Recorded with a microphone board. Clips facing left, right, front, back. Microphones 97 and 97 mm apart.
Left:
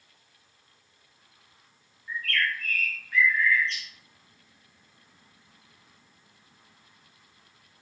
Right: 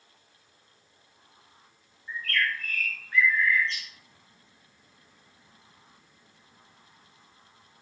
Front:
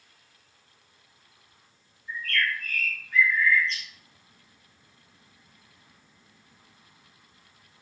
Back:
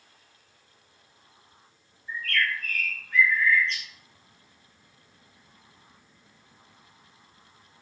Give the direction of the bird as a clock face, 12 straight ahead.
5 o'clock.